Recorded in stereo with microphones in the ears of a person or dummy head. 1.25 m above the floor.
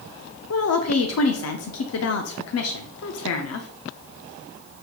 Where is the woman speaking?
65° left (ahead or behind), 0.5 m.